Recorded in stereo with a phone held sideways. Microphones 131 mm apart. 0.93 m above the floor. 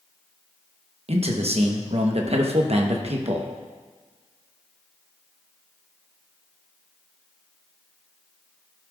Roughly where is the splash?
No splash in this recording.